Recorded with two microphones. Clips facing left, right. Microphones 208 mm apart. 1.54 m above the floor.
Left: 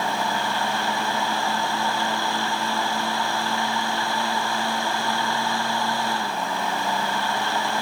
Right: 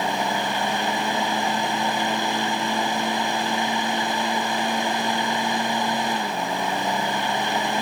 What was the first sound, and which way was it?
Only background noise.